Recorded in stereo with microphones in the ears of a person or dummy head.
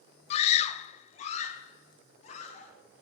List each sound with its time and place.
0.3 s a scream: 40° left (ahead or behind), 0.6 m